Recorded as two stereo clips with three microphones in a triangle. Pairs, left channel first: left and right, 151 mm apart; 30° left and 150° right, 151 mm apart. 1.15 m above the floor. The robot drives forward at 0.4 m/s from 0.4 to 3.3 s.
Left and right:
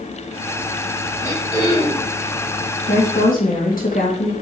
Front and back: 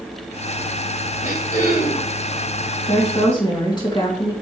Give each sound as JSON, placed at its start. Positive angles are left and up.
{"t": 1.2, "sound": "throat clearing", "azimuth_deg": 25, "distance_m": 4.5}
{"t": 2.9, "sound": "a woman speaking", "azimuth_deg": 80, "distance_m": 2.0}